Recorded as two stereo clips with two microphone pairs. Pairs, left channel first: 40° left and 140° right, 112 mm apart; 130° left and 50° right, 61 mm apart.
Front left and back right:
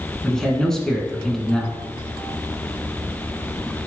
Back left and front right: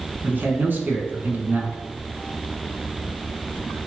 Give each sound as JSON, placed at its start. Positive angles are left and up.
{"t": 0.2, "sound": "a man speaking", "azimuth_deg": -40, "distance_m": 1.3}